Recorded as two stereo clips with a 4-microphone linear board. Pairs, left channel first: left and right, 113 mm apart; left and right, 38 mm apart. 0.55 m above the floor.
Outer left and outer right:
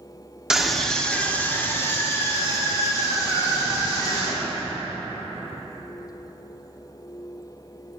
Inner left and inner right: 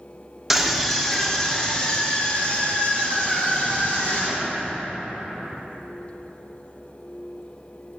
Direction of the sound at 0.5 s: 5° right (ahead or behind).